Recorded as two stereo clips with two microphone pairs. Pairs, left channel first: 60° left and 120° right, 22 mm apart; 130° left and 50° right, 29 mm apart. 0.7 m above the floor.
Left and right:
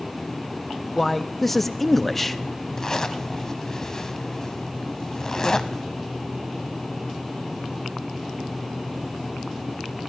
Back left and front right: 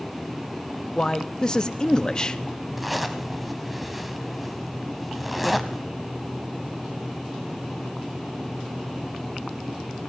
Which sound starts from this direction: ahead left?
A zipper, at 2.8 s.